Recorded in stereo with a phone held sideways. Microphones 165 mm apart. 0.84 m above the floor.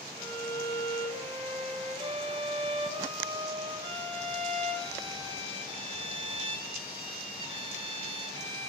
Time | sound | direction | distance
0.2 | a violin | 30° right (ahead or behind) | 4 m